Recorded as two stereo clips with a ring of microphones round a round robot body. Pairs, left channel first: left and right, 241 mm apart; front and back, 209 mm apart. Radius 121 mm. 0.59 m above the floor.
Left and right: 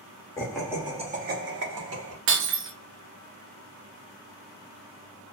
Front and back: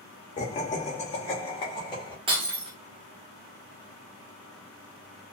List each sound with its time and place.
0.4 s laughter: 20° left, 0.7 m; by 2.2 s 70° right, 1.3 m
2.3 s breaking glass: 115° right, 0.5 m